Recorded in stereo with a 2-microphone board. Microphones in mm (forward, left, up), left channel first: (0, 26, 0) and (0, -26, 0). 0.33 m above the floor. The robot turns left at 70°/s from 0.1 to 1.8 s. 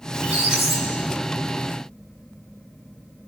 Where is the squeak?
145° right, 3 m; by 1.7 s 105° left, 3 m.